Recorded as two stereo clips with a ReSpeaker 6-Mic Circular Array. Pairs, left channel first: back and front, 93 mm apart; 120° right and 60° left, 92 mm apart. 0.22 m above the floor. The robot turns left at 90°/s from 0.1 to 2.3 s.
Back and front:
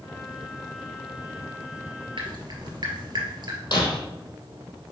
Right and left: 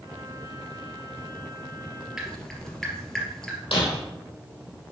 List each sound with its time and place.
2.2 s dripping: 25° right, 2.5 m; by 3.6 s 35° right, 2.5 m
3.7 s breaking glass: 140° right, 2.5 m